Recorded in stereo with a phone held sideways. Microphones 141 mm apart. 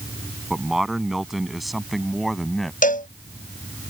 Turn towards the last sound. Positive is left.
turn(degrees=70)  # may be behind; listen again after turning